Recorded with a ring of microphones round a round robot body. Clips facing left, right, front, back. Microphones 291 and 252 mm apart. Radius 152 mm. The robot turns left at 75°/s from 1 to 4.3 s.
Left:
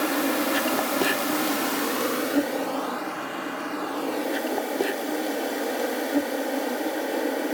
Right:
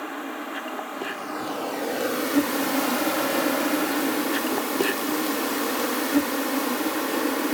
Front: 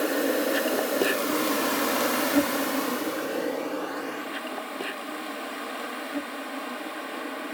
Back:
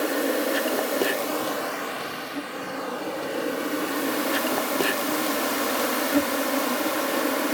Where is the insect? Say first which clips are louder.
Left 9 dB, even; 90° left; by 7.5 s 160° right.